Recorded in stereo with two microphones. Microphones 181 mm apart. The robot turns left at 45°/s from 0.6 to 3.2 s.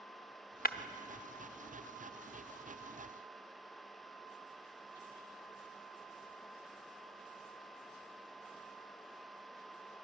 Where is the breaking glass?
55° left (ahead or behind), 0.8 m; by 0.8 s 60° left (ahead or behind), 0.8 m.